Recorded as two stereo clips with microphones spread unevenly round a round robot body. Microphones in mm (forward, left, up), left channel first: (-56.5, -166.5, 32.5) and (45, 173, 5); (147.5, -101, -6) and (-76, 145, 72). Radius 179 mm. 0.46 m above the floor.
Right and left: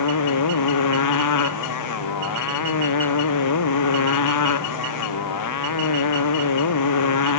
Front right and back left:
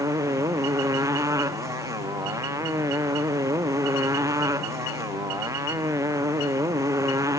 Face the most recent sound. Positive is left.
turn(degrees=-145)